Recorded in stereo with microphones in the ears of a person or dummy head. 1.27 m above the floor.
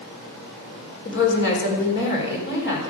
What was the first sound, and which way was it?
A woman speaking, 60° left (ahead or behind).